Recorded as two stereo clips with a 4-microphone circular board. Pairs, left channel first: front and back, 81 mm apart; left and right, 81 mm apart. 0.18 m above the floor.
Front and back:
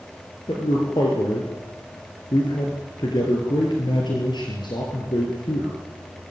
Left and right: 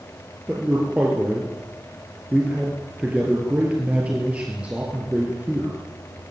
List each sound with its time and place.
0.5 s a man speaking: 15° right, 4.5 m